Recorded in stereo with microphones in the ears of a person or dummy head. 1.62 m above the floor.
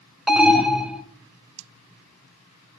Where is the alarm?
5° right (ahead or behind), 0.6 m.